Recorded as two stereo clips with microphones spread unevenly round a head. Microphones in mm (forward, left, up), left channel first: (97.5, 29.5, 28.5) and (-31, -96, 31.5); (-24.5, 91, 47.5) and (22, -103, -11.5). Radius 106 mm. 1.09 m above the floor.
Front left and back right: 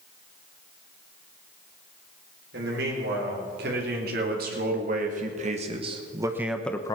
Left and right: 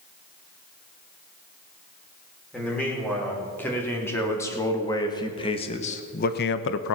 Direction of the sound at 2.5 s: 170° right.